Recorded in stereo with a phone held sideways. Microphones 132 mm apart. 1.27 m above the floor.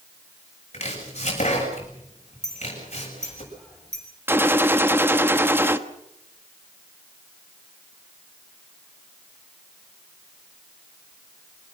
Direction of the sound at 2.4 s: 5° left (ahead or behind).